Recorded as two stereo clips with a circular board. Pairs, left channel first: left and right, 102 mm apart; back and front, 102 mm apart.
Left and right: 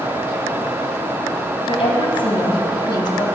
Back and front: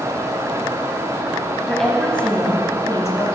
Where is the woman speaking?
95° left, 3 m; by 3.2 s 130° left, 2.5 m.